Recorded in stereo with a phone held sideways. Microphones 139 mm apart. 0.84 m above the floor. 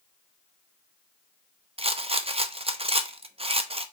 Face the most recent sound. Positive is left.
turn(degrees=-40)  # may be behind; listen again after turning